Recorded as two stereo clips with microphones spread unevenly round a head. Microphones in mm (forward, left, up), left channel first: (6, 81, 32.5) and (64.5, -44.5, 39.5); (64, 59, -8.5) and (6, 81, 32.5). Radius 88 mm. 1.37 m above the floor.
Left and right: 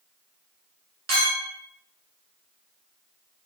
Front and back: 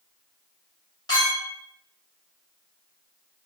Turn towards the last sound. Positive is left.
turn(degrees=-85)